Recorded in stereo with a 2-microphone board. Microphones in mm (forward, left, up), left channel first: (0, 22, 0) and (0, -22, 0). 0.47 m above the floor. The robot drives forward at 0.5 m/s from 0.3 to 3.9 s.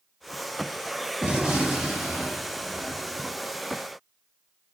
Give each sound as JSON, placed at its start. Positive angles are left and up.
{"t": 1.2, "sound": "a gunshot", "side_deg": -20, "distance_m": 1.3}